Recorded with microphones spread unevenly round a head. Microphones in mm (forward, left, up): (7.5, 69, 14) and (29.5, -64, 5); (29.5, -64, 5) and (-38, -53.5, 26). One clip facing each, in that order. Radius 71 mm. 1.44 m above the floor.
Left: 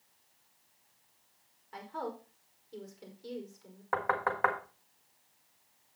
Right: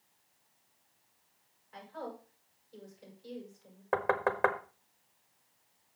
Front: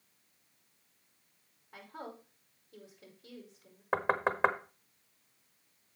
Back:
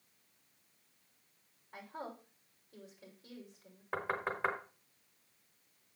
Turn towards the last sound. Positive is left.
turn(degrees=-20)